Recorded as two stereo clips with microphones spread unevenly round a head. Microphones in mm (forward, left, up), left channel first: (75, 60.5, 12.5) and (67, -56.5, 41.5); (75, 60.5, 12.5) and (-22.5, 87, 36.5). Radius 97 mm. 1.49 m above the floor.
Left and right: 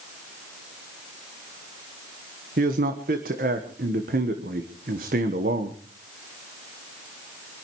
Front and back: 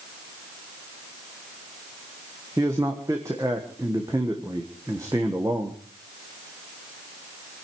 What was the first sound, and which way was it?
A man speaking, 120° right.